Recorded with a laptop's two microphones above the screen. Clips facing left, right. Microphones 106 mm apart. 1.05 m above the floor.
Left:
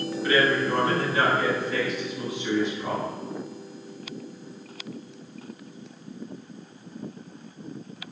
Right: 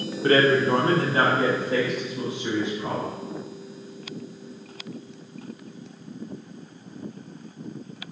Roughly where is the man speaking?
Right.